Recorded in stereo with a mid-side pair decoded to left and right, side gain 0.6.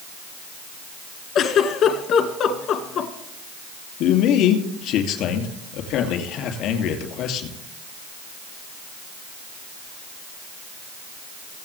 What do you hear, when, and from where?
1.4 s a giggle: 60° left, 1.6 m
4.0 s a man speaking: 70° left, 2.5 m